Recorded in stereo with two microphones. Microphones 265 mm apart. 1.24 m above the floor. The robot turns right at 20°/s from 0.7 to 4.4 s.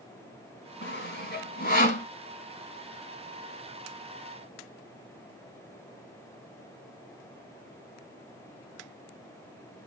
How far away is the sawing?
About 1.5 m.